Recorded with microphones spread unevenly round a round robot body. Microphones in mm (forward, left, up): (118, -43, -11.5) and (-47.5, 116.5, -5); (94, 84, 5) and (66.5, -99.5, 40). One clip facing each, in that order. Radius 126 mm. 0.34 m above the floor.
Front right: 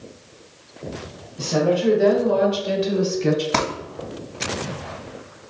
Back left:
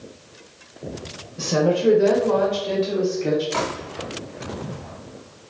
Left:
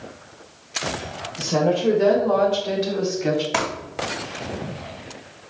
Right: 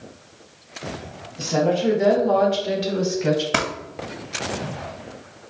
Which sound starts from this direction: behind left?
A woman speaking, at 1.4 s.